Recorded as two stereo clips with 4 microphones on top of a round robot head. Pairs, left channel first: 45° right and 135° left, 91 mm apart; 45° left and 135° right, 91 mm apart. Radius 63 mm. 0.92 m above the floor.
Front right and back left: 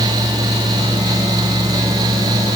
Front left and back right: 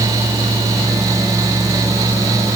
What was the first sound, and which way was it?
Only background noise.